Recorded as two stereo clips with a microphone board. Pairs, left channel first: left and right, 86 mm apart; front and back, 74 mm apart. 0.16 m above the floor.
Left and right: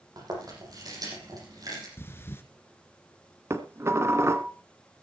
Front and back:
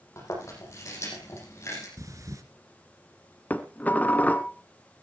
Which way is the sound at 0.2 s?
50° right.